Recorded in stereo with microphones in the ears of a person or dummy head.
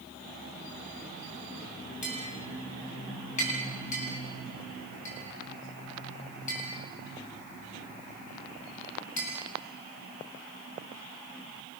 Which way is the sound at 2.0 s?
45° left (ahead or behind).